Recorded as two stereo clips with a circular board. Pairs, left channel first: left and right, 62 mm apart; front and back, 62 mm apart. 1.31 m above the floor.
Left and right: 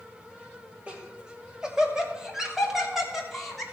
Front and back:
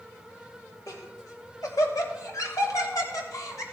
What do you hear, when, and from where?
0.9 s laughter: 20° right, 2 m; by 3.6 s 5° right, 3.5 m